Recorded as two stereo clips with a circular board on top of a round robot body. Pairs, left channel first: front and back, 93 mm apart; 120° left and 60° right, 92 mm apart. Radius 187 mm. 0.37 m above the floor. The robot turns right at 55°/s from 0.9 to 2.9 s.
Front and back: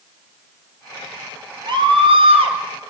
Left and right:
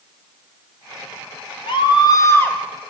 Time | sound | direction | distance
1.7 | a scream | 145° left | 3 m